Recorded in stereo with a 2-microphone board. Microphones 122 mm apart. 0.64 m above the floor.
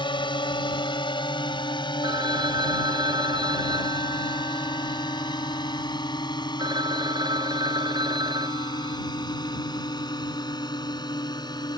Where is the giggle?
No giggle in this recording.